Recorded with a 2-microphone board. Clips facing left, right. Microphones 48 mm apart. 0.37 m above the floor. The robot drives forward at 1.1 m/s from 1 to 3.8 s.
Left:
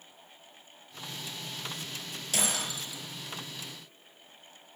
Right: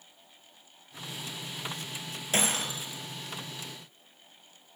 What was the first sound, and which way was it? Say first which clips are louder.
Breaking glass: right 3 dB; 35° right (ahead or behind).